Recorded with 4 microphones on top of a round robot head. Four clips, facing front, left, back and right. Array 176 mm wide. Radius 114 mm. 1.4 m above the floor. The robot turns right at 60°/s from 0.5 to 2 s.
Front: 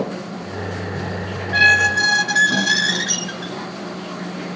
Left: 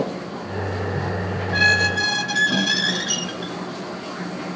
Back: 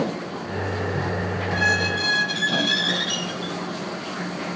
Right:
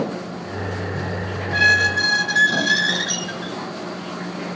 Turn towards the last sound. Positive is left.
turn(degrees=35)